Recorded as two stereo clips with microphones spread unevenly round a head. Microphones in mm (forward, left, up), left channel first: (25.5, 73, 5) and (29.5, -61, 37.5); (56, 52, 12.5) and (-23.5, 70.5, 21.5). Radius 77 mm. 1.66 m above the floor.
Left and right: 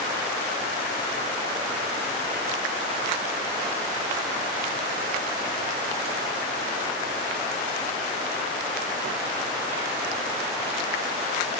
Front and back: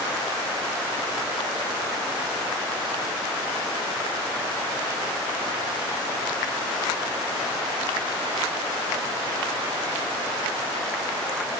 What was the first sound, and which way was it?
Only background noise.